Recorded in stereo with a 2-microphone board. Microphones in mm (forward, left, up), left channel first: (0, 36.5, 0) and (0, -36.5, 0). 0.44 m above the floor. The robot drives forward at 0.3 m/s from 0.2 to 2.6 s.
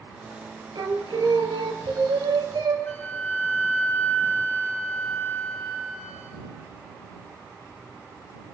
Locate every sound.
0.8 s singing: 70° right (ahead or behind), 2 m; by 2.8 s 85° right, 2 m
2.9 s a flute: 25° left (ahead or behind), 3 m